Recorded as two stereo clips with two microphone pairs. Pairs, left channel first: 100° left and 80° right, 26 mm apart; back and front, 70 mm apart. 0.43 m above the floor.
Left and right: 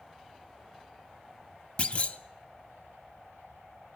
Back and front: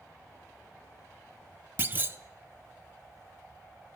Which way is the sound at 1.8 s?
60° left.